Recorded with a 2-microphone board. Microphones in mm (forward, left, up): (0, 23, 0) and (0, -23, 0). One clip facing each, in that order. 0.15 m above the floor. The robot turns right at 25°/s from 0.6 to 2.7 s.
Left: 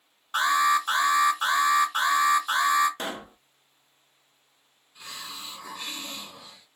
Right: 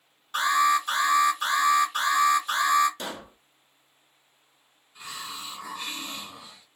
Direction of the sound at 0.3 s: 20° left (ahead or behind).